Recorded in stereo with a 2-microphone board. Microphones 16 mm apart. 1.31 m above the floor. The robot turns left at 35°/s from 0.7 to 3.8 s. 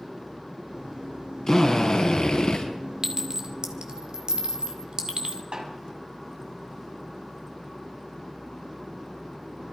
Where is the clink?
40° right (ahead or behind), 2.5 m; by 5.4 s 65° right (ahead or behind), 2.5 m.